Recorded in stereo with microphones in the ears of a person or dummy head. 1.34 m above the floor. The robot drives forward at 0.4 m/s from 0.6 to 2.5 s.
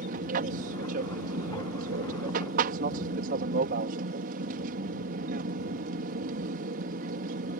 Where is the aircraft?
45° right (ahead or behind).